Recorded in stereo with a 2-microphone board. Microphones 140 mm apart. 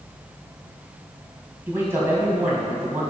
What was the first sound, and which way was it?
A man speaking, 15° right (ahead or behind).